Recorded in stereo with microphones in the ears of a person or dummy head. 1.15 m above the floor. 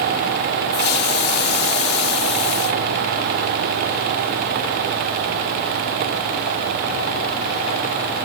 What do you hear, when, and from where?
0.7 s a hiss: 60° left (ahead or behind)